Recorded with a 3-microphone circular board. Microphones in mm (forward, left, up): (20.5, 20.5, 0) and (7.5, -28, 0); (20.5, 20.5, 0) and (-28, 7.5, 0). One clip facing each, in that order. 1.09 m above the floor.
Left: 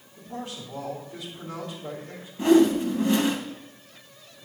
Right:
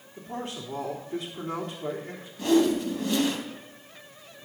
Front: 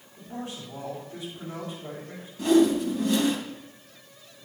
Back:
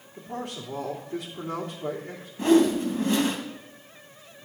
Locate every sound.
0.2 s a man speaking: 140° right, 3.5 m
2.4 s a whoosh: 140° left, 2.5 m